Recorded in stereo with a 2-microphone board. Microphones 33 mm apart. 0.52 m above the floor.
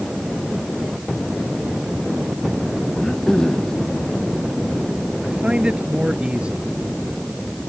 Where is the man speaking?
30° right (ahead or behind).